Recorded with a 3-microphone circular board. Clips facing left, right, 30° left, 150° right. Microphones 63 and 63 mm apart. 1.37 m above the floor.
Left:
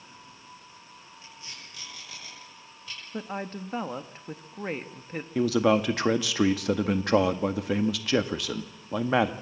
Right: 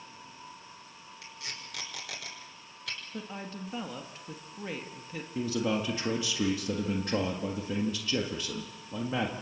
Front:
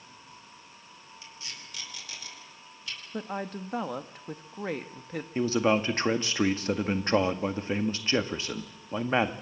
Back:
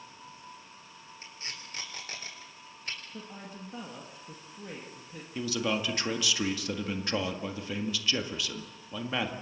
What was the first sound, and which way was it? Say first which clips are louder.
Tape being pulled: right 4 dB, back 2 dB; 100° right.